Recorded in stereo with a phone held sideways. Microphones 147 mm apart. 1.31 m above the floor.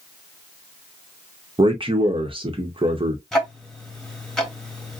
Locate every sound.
1.6 s a man speaking: 35° right (ahead or behind), 0.9 m
3.3 s ticking: 5° left (ahead or behind), 0.9 m